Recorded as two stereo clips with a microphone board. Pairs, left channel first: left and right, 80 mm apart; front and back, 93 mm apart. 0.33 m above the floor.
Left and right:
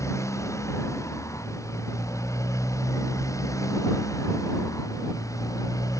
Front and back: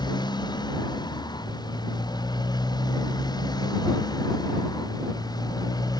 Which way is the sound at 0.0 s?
40° left.